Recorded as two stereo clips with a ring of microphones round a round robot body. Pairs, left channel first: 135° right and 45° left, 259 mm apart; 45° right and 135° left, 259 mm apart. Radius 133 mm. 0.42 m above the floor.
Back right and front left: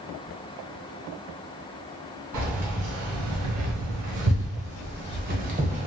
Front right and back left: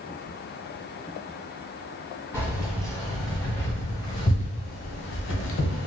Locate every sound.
2.3 s keys jangling: 55° left, 1.9 m; by 5.9 s 25° right, 1.1 m